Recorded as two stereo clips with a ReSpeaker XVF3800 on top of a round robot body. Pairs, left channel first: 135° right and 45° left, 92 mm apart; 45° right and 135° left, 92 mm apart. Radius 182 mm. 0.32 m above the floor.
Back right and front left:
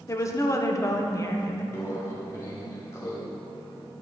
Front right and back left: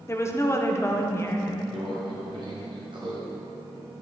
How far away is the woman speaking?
About 1.3 m.